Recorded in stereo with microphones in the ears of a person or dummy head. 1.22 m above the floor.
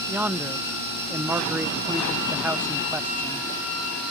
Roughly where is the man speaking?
Centre.